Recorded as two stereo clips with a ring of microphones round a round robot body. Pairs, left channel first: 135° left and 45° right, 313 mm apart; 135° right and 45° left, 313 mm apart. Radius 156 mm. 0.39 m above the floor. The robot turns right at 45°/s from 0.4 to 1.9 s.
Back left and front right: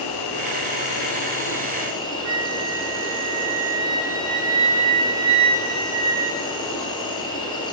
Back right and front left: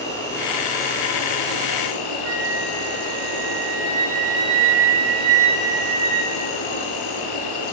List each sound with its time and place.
0.0 s an insect: 145° left, 3.5 m; by 7.7 s 150° right, 3.5 m
2.2 s a flute: straight ahead, 2.5 m